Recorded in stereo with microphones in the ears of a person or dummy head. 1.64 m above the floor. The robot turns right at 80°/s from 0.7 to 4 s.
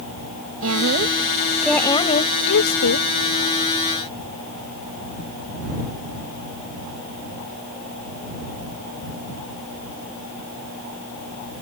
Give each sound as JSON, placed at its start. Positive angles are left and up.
{"t": 0.6, "sound": "a woman speaking", "azimuth_deg": -70}